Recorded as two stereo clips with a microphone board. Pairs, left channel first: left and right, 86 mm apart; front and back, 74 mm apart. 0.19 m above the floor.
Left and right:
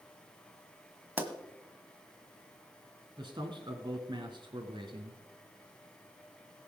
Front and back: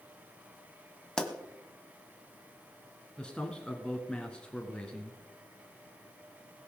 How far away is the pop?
About 1.5 m.